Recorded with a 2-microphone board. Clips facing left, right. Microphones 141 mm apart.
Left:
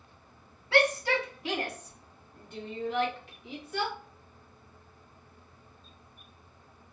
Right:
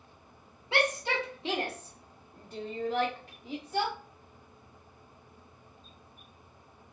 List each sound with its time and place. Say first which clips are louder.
0.7 s a shout: left 4 dB; 20° right (ahead or behind), 1.5 m; by 3.9 s 40° right (ahead or behind), 1.6 m